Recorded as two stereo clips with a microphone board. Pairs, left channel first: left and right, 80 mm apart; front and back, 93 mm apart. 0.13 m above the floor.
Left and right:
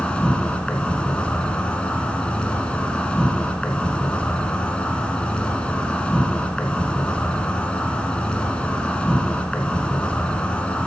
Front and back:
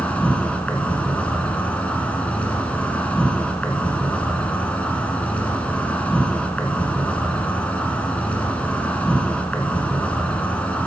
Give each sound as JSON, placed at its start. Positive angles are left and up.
{"t": 0.0, "sound": "an insect", "azimuth_deg": 40, "distance_m": 1.7}